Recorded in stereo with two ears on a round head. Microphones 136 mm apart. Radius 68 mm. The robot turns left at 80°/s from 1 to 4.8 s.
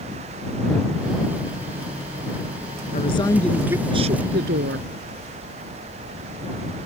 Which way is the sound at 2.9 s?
50° left.